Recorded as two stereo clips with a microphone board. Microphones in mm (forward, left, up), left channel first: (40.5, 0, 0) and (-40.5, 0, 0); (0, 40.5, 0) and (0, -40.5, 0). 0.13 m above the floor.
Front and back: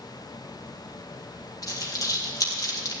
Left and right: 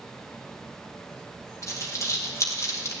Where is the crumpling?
40° left, 3 m.